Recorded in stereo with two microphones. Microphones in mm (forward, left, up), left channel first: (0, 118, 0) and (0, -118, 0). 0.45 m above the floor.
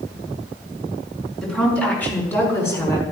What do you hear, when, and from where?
1.4 s a woman speaking: 5° left (ahead or behind), 5.5 m; by 3.0 s 15° left (ahead or behind), 5 m